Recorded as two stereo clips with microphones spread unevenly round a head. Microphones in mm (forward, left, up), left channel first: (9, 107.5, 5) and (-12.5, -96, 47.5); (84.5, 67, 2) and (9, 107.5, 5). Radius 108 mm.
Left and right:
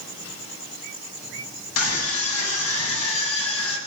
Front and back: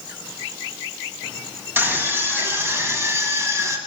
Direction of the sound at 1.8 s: 85° left.